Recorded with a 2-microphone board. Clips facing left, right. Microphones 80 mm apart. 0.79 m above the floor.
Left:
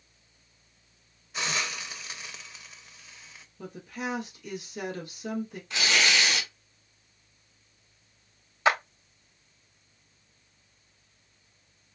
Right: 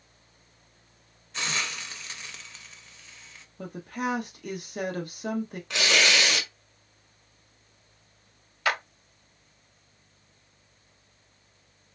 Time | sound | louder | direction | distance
1.3 | a hiss | even | 10° left (ahead or behind) | 0.7 m
3.6 | a woman speaking | right 4 dB | 55° right (ahead or behind) | 1.3 m
5.7 | tearing paper | right 2 dB | 85° right | 1.7 m
8.7 | a clap | left 4 dB | 20° left (ahead or behind) | 0.9 m